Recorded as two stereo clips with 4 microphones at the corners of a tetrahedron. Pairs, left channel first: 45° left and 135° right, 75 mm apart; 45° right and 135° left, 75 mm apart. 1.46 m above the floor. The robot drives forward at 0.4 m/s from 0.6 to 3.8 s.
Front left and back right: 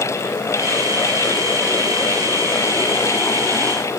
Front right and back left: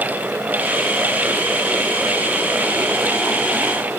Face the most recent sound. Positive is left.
No sound to turn to.